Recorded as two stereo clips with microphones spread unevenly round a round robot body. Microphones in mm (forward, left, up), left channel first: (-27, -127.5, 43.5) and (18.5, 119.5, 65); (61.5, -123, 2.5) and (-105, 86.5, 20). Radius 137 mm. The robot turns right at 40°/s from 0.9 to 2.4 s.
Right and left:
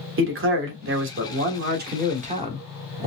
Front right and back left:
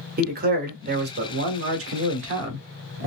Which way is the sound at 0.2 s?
80° left.